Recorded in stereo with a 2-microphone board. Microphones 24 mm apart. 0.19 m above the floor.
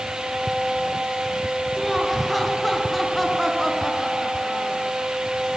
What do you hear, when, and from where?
1.8 s laughter: 5° left (ahead or behind), 2.5 m